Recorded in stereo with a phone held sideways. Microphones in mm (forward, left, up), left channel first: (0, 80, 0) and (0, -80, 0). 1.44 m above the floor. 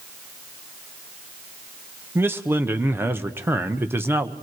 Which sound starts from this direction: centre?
A man speaking, at 2.1 s.